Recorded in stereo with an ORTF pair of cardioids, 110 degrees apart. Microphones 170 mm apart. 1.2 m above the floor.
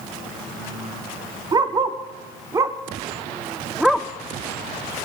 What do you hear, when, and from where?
1.5 s a dog barking: 30° right, 1.9 m; by 4.1 s 5° left, 0.9 m